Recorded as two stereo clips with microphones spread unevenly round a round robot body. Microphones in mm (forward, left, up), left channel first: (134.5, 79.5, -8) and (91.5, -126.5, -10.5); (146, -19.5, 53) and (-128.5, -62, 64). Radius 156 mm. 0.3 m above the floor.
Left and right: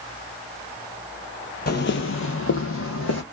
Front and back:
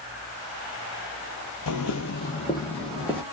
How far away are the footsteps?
About 0.5 m.